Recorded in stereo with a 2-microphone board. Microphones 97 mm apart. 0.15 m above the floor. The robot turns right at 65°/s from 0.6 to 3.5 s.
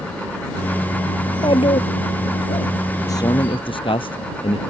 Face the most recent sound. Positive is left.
turn(degrees=60)  # may be behind; listen again after turning